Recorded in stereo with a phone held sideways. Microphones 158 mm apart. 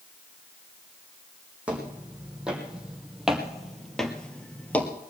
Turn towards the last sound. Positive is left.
turn(degrees=10)  # may be behind; listen again after turning